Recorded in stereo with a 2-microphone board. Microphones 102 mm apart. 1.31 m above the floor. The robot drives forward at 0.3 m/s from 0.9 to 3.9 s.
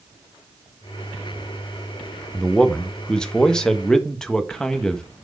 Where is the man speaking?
10° left (ahead or behind), 0.8 m; by 5.0 s 5° left (ahead or behind), 1.3 m.